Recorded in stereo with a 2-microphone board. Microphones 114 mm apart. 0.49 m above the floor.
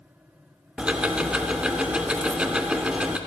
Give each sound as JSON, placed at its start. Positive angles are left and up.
{"t": 0.8, "sound": "ticking", "side_deg": -10, "distance_m": 0.6}